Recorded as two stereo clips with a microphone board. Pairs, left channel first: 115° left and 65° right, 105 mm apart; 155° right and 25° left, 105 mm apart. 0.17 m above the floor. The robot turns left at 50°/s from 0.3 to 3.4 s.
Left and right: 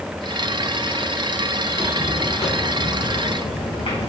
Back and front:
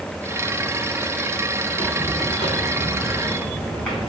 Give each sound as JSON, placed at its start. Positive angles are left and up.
{"t": 1.7, "sound": "footsteps", "azimuth_deg": -175, "distance_m": 3.5}